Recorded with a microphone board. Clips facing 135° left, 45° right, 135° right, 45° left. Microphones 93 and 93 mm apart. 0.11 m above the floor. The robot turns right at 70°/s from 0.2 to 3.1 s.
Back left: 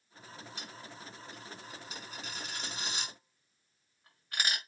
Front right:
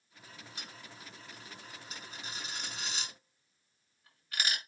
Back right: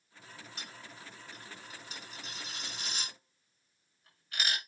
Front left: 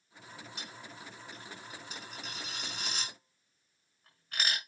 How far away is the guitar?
I don't hear a guitar.